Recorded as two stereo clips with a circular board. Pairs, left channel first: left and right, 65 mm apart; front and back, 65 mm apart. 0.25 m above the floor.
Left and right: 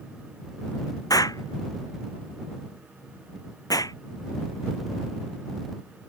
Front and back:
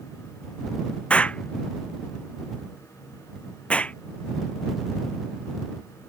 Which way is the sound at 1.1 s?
70° left.